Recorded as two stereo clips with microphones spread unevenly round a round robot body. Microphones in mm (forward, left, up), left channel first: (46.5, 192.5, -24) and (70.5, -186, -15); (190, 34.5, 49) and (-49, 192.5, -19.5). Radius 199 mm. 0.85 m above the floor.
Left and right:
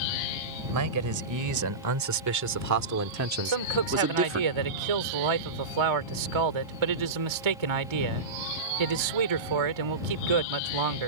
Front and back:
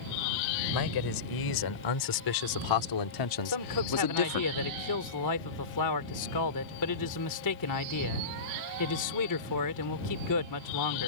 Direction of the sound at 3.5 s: 80° right.